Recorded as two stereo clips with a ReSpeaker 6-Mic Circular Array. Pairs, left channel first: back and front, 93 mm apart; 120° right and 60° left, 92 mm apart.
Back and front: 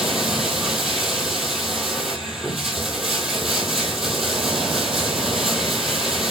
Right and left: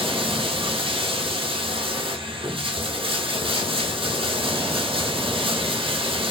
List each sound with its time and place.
0.0 s running water: 85° left, 1.2 m